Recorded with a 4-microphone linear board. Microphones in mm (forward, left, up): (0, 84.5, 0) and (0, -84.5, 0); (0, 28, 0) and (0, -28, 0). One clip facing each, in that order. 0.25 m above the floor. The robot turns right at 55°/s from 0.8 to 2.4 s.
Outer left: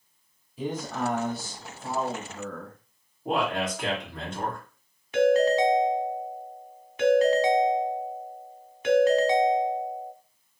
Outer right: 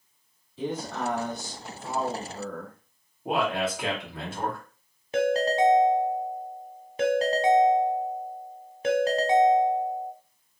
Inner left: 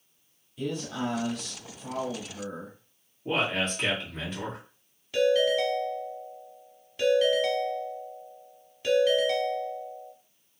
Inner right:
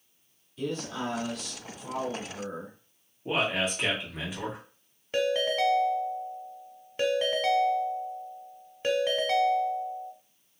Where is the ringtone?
30° right (ahead or behind), 0.6 m.